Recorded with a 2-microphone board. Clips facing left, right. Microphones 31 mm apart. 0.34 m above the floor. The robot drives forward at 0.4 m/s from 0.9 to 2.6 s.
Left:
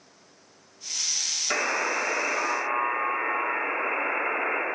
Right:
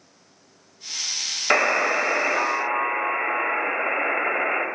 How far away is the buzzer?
About 0.8 m.